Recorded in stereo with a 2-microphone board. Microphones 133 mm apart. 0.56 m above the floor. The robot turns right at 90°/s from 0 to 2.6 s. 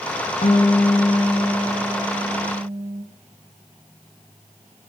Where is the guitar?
65° left, 2 m; by 3.0 s 95° right, 2 m.